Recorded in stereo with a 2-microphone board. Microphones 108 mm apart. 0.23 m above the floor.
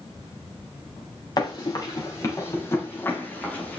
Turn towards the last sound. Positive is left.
turn(degrees=10)  # may be behind; listen again after turning